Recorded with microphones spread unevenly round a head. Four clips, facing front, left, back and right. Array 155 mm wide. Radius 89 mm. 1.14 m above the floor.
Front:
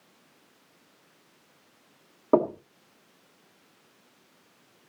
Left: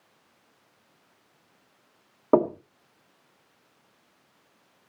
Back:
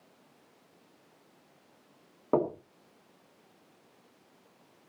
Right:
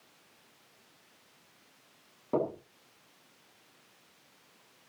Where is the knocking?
50° left, 2 m.